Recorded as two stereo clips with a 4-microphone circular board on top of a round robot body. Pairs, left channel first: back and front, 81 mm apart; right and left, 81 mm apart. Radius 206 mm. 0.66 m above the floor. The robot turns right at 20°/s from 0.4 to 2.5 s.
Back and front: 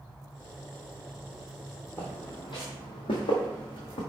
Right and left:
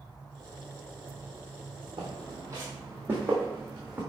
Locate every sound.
2.0 s footsteps: 115° left, 0.9 m; by 4.0 s 165° left, 2 m